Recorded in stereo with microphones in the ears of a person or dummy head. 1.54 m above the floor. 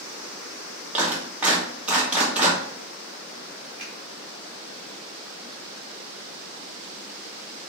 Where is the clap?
10° right (ahead or behind), 2.5 m.